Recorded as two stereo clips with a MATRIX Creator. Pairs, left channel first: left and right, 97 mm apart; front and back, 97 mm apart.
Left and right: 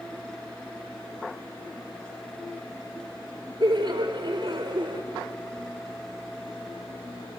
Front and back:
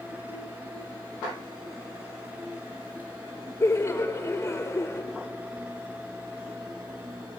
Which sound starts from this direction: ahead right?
Laughter, at 3.6 s.